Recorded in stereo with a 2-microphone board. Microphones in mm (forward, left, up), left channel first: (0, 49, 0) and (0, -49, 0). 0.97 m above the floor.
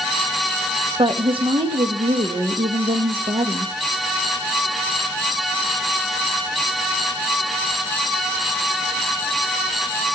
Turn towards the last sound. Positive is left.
turn(degrees=-60)  # may be behind; listen again after turning